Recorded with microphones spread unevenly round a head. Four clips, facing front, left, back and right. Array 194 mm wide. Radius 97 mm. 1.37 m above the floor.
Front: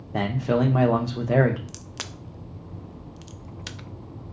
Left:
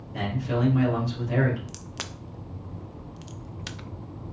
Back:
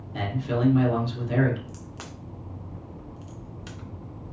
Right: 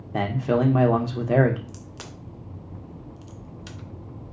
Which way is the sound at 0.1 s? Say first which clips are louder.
Right 6 dB, front 5 dB; 50° right.